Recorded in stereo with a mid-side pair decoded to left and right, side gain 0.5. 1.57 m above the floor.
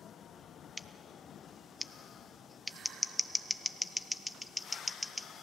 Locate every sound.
0.8 s scissors: 10° left, 0.9 m